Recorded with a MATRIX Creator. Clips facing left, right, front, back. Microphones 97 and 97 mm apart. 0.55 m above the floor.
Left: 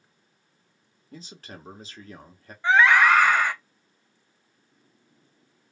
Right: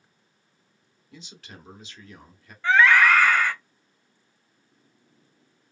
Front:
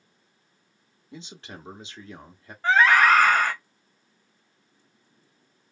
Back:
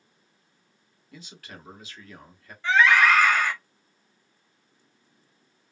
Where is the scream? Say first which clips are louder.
Even, front 1 dB; 25° left, 0.8 m.